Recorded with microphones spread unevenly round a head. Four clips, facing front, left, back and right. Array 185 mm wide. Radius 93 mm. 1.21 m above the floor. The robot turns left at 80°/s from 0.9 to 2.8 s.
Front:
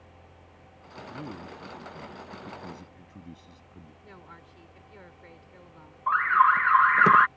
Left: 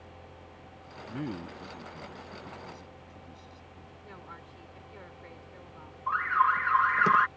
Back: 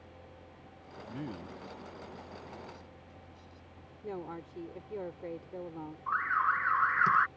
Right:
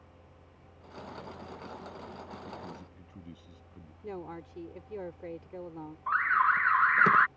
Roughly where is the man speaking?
Behind left.